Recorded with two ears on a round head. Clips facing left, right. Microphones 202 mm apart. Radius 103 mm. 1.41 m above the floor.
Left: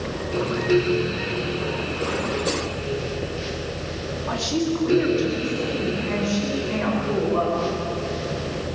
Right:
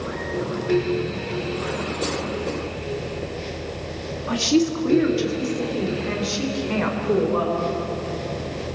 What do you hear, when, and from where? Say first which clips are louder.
4.3 s a woman speaking: right 5 dB; 35° right (ahead or behind), 2.5 m; by 7.6 s 60° right (ahead or behind), 6 m